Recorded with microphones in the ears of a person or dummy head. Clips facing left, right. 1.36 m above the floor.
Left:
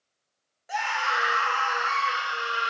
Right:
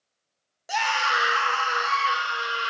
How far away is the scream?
About 0.5 m.